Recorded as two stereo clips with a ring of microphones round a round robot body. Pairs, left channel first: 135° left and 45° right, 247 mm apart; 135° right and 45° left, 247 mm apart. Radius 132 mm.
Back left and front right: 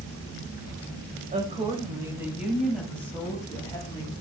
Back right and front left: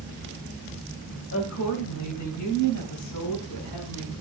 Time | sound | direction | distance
1.3 | a woman speaking | 105° right | 3 m